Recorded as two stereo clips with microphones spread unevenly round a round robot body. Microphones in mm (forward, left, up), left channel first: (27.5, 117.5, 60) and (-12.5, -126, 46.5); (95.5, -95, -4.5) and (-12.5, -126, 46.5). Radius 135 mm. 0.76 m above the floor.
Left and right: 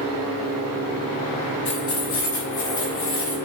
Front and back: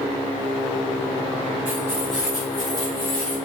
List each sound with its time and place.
1.6 s keys jangling: 125° left, 1.2 m; by 3.4 s 70° left, 3 m